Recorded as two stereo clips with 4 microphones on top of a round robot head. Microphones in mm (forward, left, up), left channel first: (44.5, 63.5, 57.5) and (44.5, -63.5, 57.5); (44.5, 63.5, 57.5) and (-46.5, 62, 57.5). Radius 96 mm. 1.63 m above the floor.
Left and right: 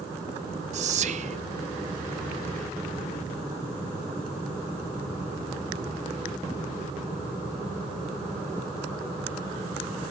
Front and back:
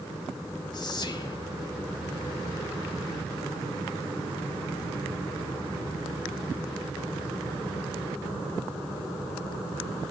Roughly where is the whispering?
Ahead right.